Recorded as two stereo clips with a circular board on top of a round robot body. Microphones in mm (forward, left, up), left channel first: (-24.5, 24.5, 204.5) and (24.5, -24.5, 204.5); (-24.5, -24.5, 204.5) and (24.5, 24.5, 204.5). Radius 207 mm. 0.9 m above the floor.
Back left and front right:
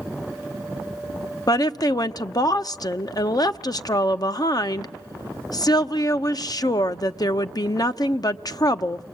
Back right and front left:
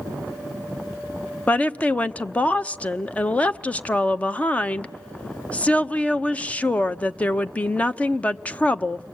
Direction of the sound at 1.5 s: 155° left.